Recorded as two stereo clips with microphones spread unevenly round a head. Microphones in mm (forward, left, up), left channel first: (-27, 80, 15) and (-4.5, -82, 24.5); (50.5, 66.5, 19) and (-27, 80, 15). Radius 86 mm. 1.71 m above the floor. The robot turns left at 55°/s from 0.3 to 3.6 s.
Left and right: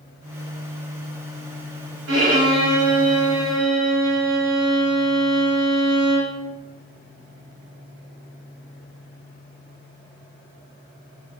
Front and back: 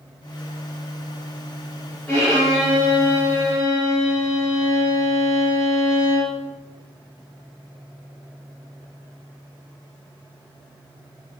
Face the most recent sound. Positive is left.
turn(degrees=-175)